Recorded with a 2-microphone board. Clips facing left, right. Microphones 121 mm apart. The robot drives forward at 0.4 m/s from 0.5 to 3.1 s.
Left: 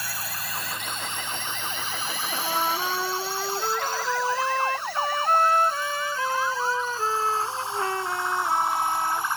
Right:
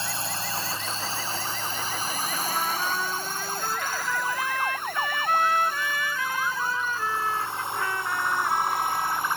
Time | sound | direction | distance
0.0 | a drone | 25° right (ahead or behind) | ?
2.3 | a trumpet | 30° left (ahead or behind) | ?